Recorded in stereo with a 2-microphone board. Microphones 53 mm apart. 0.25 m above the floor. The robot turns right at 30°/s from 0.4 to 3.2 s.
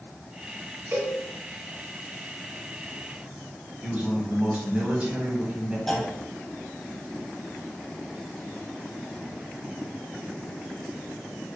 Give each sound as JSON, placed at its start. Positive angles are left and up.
{"t": 0.9, "sound": "a cowbell", "side_deg": -45, "distance_m": 0.8}
{"t": 3.8, "sound": "a man speaking", "side_deg": -25, "distance_m": 1.2}
{"t": 5.9, "sound": "a clunk", "side_deg": 5, "distance_m": 0.7}